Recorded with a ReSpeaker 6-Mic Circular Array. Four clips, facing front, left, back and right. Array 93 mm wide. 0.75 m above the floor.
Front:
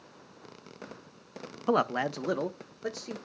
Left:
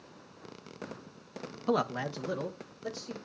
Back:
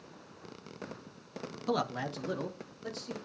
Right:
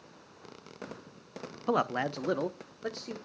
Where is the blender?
I don't hear a blender.